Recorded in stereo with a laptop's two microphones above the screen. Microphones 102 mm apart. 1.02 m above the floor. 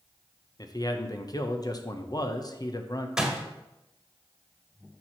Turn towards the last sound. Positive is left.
turn(degrees=-5)  # may be behind; listen again after turning